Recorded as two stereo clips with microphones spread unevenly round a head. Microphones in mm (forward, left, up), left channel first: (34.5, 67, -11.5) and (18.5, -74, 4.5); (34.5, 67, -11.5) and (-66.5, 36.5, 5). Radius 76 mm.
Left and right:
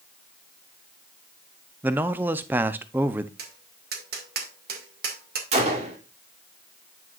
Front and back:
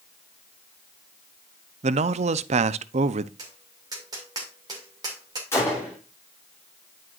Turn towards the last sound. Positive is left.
turn(degrees=-60)